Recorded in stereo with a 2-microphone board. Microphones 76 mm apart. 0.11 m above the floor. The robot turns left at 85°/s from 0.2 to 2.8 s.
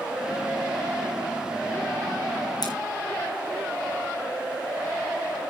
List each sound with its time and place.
2.6 s scissors: 60° left (ahead or behind), 3 m; by 2.7 s 65° left (ahead or behind), 3 m